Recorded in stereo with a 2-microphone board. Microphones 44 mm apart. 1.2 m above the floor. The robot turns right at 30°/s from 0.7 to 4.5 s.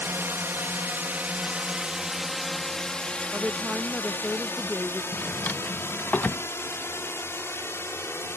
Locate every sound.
0.0 s a drone: 60° right (ahead or behind); by 8.4 s 75° left (ahead or behind)
3.3 s a woman speaking: 35° right; by 5.0 s 5° left
5.1 s a drawer: 45° left (ahead or behind)